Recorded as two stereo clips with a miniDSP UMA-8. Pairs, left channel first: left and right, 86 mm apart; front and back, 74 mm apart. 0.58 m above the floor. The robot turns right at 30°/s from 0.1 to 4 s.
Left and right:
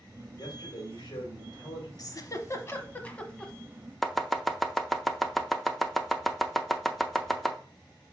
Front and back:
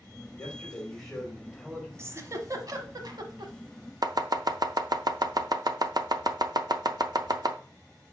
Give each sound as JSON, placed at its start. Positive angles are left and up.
{"t": 0.3, "sound": "a man speaking", "azimuth_deg": 60, "distance_m": 3.0}
{"t": 2.0, "sound": "a giggle", "azimuth_deg": 130, "distance_m": 0.9}
{"t": 4.0, "sound": "chopping", "azimuth_deg": 175, "distance_m": 0.6}